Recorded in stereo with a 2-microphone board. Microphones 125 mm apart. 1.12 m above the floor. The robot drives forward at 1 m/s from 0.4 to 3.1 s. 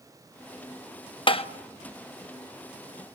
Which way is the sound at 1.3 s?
40° left (ahead or behind).